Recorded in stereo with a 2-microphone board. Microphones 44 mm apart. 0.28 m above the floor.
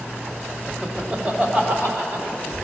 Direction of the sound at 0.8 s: 10° right (ahead or behind).